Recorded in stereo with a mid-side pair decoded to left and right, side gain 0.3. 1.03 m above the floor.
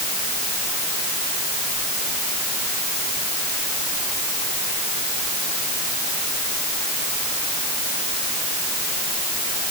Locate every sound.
Only background noise.